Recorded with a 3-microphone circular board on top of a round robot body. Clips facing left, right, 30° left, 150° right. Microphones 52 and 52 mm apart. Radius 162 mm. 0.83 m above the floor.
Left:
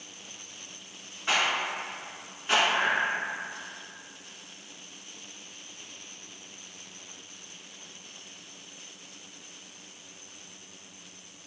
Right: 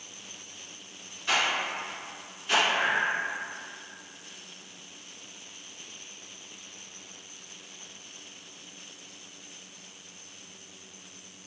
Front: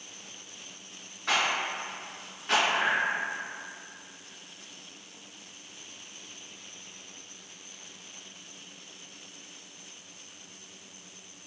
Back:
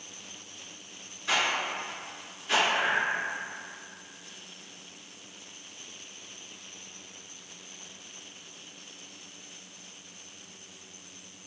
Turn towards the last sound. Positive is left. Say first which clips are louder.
# even, even
turn(degrees=5)